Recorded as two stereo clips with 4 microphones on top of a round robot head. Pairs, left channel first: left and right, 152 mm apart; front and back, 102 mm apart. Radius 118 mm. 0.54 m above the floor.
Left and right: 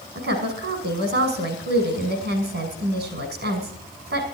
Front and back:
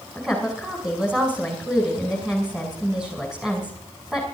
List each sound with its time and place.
0.1 s a woman speaking: 100° right, 6 m